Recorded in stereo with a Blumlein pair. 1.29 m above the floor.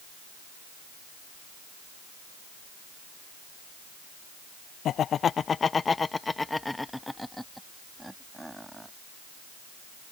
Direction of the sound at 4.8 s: 30° left.